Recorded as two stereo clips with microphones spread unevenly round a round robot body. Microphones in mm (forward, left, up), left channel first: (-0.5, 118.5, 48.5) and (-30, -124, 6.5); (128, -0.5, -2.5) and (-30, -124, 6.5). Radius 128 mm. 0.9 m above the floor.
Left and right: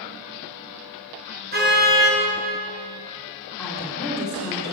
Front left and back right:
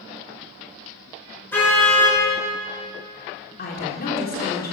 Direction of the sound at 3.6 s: Straight ahead.